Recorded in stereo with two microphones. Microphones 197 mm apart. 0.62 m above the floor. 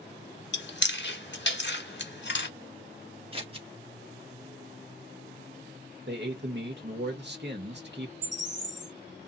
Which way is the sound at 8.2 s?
65° right (ahead or behind).